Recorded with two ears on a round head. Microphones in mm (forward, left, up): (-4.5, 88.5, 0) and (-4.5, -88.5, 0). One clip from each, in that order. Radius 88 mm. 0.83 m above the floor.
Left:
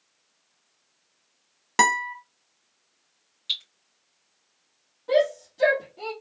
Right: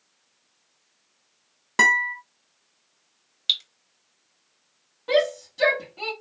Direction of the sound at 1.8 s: 25° left (ahead or behind).